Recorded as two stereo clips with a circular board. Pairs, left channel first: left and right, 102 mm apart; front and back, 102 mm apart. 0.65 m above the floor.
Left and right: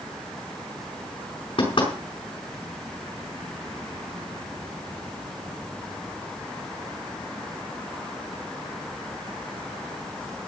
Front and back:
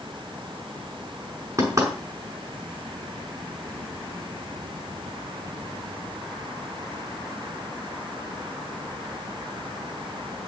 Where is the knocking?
120° left, 5.5 m.